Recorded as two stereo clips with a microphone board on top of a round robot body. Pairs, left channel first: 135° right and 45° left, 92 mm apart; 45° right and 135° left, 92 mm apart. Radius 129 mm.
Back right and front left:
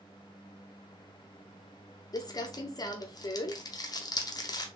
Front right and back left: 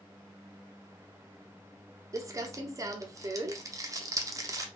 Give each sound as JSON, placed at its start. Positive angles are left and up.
{"t": 2.1, "sound": "crumpling", "azimuth_deg": -175, "distance_m": 0.6}